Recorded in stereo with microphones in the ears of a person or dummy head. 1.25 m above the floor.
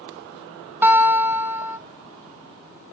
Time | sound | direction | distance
0.8 | a guitar | 15° right (ahead or behind) | 0.6 m